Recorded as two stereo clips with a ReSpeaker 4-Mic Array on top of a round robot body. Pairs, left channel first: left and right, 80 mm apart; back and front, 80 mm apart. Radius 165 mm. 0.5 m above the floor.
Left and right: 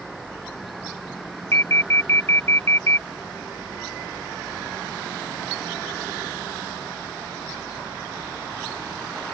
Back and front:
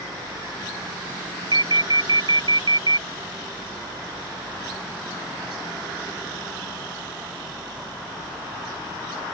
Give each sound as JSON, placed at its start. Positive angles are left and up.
{"t": 1.5, "sound": "an alarm", "azimuth_deg": 30}